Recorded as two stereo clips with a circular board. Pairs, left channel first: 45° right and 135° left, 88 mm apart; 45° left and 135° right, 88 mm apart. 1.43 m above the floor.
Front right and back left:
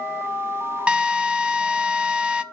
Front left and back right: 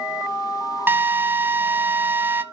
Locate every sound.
0.9 s a drill: 160° right, 0.6 m